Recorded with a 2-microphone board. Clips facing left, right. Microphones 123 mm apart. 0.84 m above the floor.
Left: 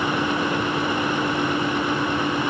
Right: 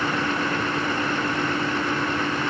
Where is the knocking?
No knocking in this recording.